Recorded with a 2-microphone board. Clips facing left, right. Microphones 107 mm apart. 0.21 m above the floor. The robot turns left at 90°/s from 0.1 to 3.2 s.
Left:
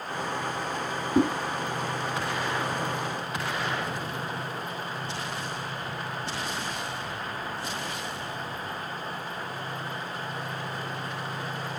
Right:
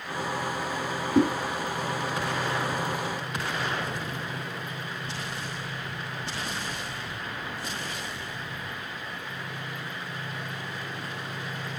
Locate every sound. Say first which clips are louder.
1.1 s a whoosh: right 1 dB; 5° left (ahead or behind), 1.3 m; by 1.3 s 10° left (ahead or behind), 1.3 m